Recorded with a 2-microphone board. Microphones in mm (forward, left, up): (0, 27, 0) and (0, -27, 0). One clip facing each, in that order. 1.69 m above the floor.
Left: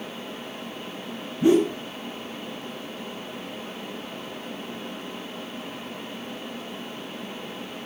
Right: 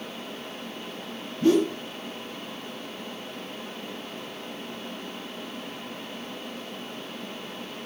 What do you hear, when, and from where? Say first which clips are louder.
1.4 s a whoosh: left 2 dB; 15° left (ahead or behind), 1.6 m